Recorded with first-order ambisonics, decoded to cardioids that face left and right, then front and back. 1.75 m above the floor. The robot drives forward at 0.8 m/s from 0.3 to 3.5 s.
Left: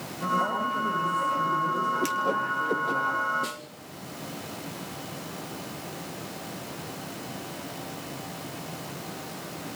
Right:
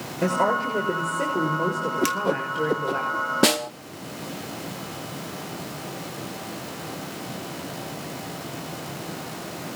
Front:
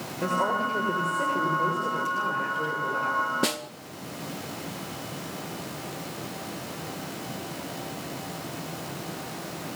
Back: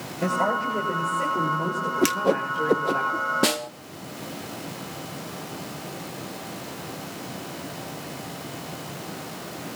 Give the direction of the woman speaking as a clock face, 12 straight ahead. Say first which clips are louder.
Right 4 dB, back 2 dB; 3 o'clock.